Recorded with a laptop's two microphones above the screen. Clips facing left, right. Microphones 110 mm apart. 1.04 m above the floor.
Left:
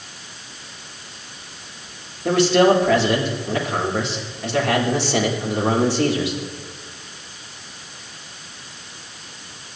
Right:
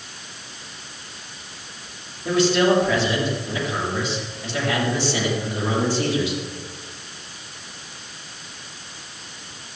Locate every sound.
2.2 s a man speaking: 80° left, 3.5 m